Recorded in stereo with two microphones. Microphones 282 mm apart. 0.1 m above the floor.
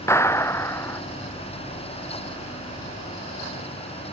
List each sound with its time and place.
0.1 s a clap: 10° left (ahead or behind)